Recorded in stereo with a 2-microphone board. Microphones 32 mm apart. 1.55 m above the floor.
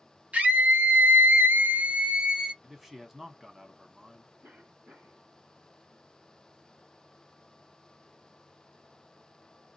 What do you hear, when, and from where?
0.3 s a scream: 45° right (ahead or behind), 1.0 m; by 2.5 s 20° right (ahead or behind), 1.0 m
2.6 s a man speaking: 5° right (ahead or behind), 1.0 m
4.4 s a cough: 80° right, 1.4 m